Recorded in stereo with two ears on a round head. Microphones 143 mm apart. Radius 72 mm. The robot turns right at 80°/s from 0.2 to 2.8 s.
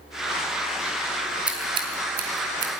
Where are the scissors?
5° right (ahead or behind), 3 m; by 2.7 s 75° right (ahead or behind), 3 m.